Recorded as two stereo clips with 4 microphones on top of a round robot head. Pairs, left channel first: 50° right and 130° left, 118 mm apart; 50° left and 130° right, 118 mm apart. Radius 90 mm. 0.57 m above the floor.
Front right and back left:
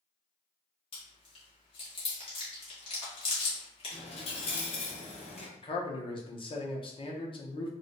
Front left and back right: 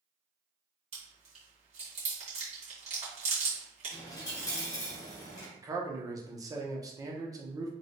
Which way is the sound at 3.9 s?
10° right.